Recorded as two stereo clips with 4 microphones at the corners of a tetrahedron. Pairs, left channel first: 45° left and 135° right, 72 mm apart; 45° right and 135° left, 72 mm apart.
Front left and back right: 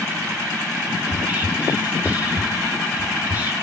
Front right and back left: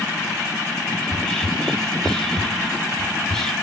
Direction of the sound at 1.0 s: 120° right.